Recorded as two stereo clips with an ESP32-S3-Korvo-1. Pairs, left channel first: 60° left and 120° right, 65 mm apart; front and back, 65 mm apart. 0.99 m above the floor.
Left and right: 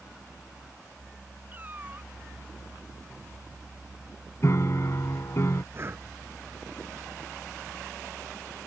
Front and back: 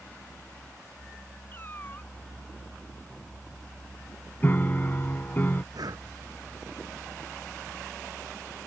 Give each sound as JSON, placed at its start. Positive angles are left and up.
{"t": 1.5, "sound": "a cat meowing", "azimuth_deg": -60}
{"t": 4.4, "sound": "a piano", "azimuth_deg": 45}
{"t": 5.7, "sound": "breathing", "azimuth_deg": -170}